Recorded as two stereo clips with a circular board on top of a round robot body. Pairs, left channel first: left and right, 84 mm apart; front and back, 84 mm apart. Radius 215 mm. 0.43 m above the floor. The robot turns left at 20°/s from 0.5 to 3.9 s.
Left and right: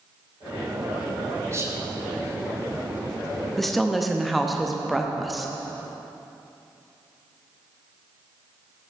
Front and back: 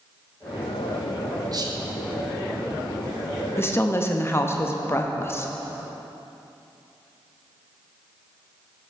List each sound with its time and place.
1.5 s whispering: 145° right, 1.8 m; by 1.8 s 150° right, 1.8 m
3.6 s a woman speaking: 5° left, 1.1 m; by 5.5 s straight ahead, 1.1 m